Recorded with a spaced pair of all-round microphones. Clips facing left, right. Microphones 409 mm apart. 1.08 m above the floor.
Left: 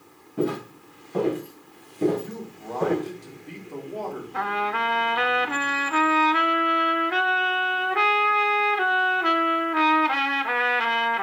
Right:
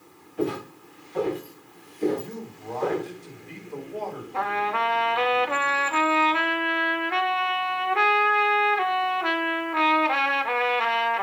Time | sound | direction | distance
0.4 | footsteps | 60° left (ahead or behind) | 4.5 m
2.1 | a man speaking | 75° left (ahead or behind) | 3.5 m
4.3 | a trumpet | 30° left (ahead or behind) | 1.0 m